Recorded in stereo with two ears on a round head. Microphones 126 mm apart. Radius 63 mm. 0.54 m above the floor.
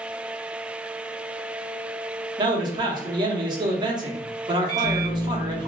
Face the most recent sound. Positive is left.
turn(degrees=25)  # may be behind; listen again after turning